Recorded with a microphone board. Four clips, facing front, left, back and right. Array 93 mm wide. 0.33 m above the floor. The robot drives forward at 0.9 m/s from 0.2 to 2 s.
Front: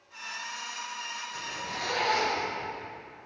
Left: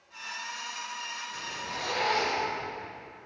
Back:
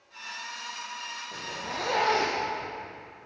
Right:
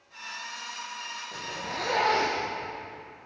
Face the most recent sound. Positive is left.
turn(degrees=-145)